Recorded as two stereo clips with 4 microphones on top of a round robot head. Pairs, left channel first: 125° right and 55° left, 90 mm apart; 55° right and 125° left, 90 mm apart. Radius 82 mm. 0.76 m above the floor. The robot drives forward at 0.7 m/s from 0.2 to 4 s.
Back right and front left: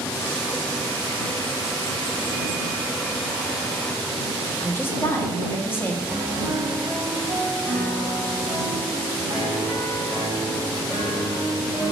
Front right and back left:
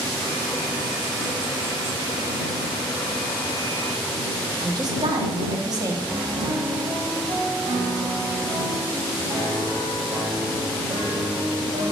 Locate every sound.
4.6 s a woman speaking: 170° left, 1.2 m
6.1 s a piano: 145° left, 3 m